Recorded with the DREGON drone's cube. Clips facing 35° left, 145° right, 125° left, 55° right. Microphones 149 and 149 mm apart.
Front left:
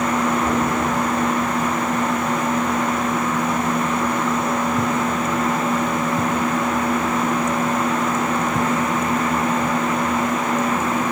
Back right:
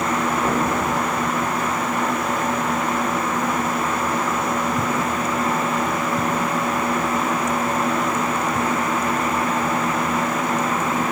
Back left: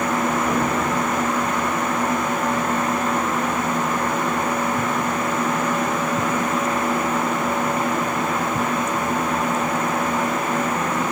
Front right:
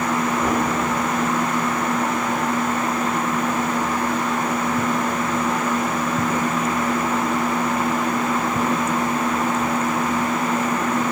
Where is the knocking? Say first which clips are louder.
Front left 1 dB, even; 85° right, 2 m.